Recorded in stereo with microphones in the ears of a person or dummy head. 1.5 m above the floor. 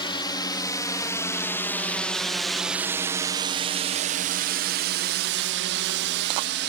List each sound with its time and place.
0.0 s a drone: 20° left (ahead or behind); by 6.7 s 60° right (ahead or behind)